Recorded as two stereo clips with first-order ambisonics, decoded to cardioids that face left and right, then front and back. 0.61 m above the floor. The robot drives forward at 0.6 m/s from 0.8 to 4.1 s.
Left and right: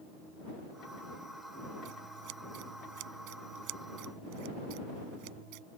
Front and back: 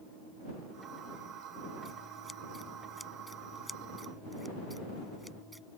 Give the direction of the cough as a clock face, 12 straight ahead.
No cough in this recording.